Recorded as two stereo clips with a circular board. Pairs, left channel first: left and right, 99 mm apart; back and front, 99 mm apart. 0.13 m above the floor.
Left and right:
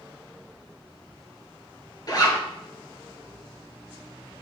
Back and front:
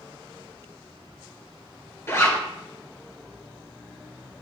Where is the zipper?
125° left, 2.5 m.